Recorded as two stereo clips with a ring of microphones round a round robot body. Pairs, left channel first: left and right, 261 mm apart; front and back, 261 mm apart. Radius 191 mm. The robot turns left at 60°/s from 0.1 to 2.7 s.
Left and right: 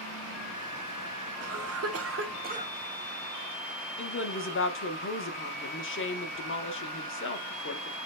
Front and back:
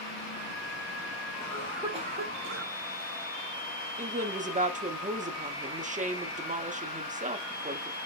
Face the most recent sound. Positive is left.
turn(degrees=120)